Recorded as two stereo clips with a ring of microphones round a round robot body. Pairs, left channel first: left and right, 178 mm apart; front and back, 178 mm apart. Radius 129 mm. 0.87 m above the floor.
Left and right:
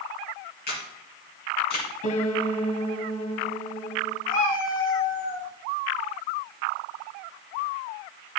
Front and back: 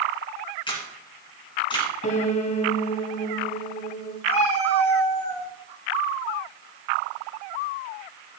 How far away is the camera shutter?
About 3 m.